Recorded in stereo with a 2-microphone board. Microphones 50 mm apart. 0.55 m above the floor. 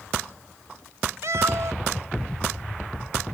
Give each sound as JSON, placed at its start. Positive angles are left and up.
{"t": 1.2, "sound": "a cat meowing", "side_deg": -75}